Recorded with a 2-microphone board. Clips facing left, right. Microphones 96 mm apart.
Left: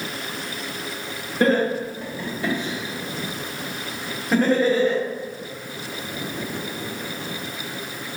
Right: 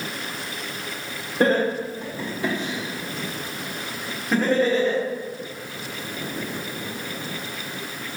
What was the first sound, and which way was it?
Laughter, 30° right (ahead or behind).